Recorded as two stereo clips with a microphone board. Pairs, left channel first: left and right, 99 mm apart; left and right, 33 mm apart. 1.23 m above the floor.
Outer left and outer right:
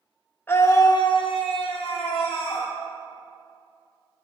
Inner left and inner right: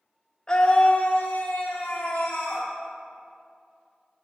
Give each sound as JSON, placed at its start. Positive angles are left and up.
{"t": 0.5, "sound": "a scream", "side_deg": 20, "distance_m": 0.8}